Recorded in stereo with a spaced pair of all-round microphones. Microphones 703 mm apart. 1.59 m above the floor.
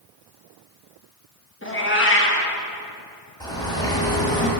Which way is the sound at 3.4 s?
5° left (ahead or behind).